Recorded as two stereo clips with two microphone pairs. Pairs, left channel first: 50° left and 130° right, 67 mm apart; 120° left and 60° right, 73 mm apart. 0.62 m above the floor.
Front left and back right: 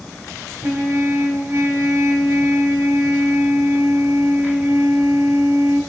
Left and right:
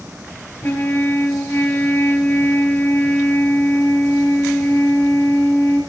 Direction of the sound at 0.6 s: 175° left.